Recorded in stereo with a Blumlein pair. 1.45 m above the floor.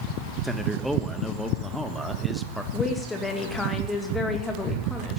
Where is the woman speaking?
15° left, 2.5 m.